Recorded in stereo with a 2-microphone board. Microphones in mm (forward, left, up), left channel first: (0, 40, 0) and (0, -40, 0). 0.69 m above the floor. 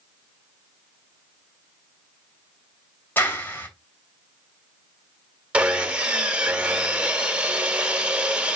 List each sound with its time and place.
3.2 s a clap: 25° left (ahead or behind), 3 m
5.5 s sawing: 15° right (ahead or behind), 1.3 m